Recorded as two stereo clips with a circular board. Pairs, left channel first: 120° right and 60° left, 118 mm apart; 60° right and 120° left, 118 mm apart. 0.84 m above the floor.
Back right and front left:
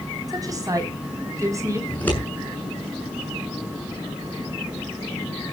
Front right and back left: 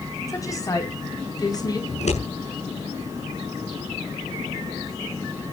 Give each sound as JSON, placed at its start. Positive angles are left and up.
{"t": 0.3, "sound": "a woman speaking", "azimuth_deg": 0, "distance_m": 6.0}
{"t": 1.9, "sound": "scissors", "azimuth_deg": -45, "distance_m": 7.5}